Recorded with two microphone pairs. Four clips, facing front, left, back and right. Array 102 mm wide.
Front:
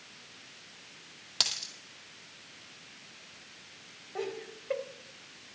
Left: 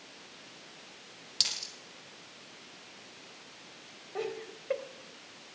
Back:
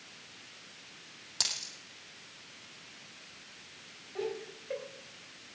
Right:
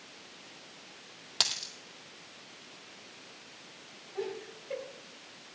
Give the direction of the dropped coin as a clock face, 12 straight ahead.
2 o'clock.